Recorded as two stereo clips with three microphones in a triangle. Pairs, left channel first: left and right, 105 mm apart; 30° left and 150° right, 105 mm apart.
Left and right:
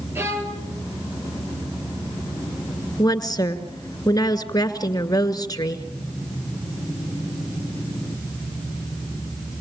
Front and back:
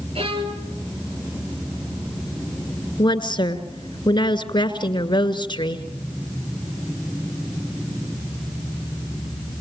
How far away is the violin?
About 3.5 m.